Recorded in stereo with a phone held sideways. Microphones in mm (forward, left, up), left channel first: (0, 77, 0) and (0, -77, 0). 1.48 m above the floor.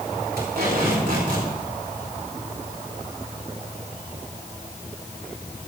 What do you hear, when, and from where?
0.4 s tape being pulled: 80° right, 4 m